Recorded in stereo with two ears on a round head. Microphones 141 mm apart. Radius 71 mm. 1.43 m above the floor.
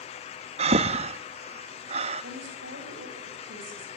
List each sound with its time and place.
0.6 s breathing: 40° right (ahead or behind), 1.1 m
2.2 s a woman speaking: 90° right, 6.5 m